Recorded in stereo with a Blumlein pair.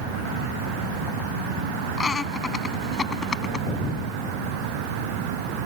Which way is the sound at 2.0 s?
15° left.